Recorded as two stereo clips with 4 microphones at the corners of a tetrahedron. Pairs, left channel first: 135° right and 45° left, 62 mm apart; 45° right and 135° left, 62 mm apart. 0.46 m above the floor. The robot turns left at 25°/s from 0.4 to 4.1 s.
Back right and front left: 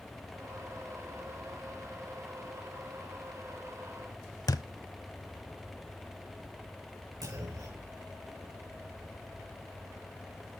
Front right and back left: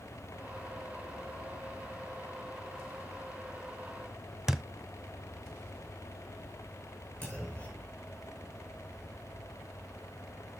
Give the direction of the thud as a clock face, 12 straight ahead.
5 o'clock.